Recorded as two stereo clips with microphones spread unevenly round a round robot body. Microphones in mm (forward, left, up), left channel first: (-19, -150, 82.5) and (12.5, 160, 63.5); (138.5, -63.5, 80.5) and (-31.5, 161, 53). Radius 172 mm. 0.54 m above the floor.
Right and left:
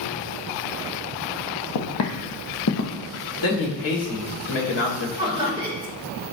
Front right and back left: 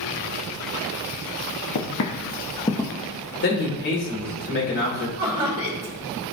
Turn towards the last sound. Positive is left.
turn(degrees=155)